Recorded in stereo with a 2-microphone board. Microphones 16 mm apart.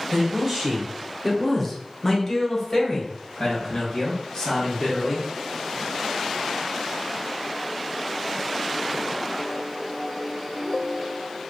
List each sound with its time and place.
0.1 s a man speaking: 35° right (ahead or behind), 1.2 m; by 5.2 s 40° left (ahead or behind), 3 m